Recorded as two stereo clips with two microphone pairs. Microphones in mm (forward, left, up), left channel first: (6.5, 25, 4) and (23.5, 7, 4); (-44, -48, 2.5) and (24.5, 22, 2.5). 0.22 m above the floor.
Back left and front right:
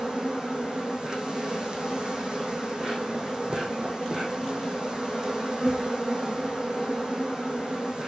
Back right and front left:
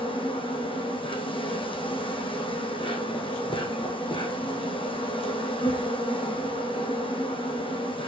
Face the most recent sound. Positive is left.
turn(degrees=-105)